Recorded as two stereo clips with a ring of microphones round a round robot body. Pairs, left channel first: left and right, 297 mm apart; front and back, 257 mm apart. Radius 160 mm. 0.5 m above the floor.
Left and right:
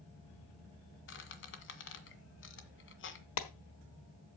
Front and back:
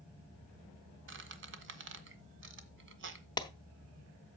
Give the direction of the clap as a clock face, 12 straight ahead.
10 o'clock.